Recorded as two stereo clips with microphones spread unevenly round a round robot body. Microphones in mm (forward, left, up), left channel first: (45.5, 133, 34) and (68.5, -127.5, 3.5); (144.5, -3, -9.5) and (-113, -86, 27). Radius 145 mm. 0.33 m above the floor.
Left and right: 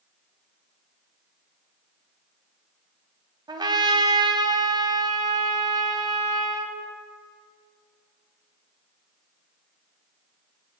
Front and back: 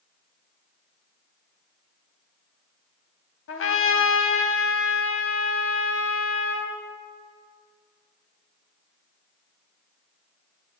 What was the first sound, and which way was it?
A trumpet, 15° right.